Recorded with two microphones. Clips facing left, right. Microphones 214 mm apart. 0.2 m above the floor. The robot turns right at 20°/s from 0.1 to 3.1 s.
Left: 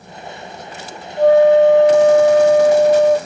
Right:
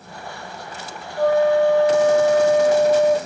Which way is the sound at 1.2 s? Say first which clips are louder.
Left 7 dB; 145° left.